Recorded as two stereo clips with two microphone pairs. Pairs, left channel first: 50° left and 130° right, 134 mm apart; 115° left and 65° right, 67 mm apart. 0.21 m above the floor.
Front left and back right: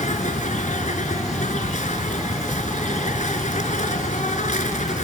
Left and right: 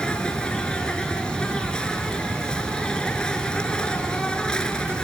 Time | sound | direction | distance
0.0 | an insect | 40° left | 1.3 m